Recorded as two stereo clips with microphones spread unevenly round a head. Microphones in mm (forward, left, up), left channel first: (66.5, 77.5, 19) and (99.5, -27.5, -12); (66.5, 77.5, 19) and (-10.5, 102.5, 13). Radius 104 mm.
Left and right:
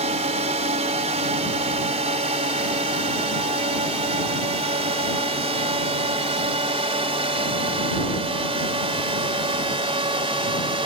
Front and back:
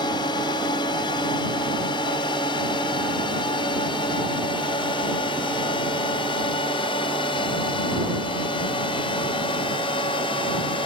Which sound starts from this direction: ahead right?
A drone, at 0.0 s.